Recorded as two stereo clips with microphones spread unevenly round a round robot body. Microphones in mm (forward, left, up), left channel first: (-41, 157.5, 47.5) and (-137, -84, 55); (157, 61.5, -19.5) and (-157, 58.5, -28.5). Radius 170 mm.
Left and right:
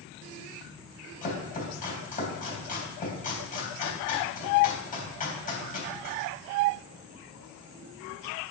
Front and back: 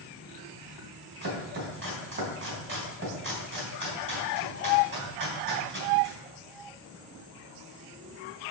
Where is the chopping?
125° left, 3.5 m.